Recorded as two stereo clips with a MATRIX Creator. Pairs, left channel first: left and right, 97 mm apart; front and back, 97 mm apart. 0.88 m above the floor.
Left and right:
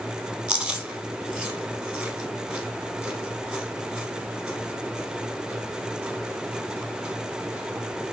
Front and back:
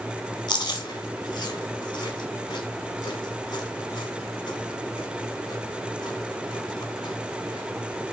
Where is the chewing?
10° right, 0.9 m.